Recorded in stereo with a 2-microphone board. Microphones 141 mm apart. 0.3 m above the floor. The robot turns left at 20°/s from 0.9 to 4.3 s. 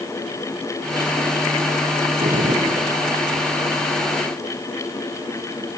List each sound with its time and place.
2.2 s a gunshot: 70° right (ahead or behind), 4 m; by 2.9 s 55° right (ahead or behind), 4 m